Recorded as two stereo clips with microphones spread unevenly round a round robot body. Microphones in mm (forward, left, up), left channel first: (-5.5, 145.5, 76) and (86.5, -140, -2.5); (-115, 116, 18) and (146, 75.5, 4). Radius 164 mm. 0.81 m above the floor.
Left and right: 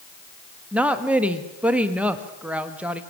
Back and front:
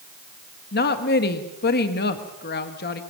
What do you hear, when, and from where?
0.7 s a woman speaking: 140° right, 1.3 m